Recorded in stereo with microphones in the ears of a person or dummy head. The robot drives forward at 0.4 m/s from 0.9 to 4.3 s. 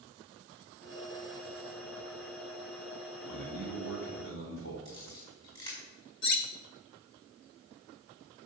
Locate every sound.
3.2 s a man speaking: 65° left (ahead or behind), 3.5 m; by 4.8 s 60° left (ahead or behind), 3.5 m
4.8 s a camera shutter: 25° left (ahead or behind), 5 m
6.2 s cutlery clinking: 50° left (ahead or behind), 0.8 m